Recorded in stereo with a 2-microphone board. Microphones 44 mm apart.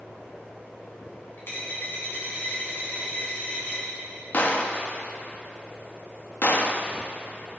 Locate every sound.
1.4 s a dropped coin: 50° left (ahead or behind), 3 m
4.3 s a gunshot: 40° left (ahead or behind), 0.8 m